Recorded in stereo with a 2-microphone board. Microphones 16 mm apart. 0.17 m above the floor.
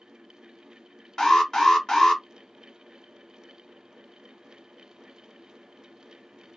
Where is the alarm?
35° left (ahead or behind), 1.4 m.